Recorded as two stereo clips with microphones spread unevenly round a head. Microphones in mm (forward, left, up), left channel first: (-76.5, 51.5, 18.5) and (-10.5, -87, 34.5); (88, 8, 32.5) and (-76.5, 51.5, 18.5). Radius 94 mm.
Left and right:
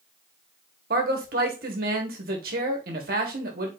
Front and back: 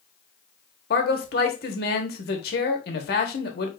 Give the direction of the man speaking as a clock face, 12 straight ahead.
1 o'clock.